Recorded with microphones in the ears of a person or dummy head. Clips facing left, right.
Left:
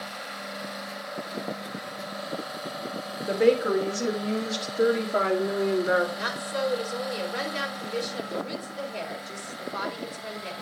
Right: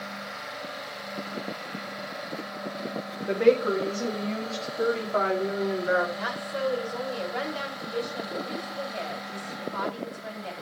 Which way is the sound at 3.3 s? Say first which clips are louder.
Even; 5° left (ahead or behind).